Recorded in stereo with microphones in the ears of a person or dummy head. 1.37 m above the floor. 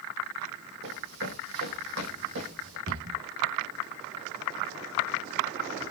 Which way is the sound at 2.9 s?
55° right (ahead or behind).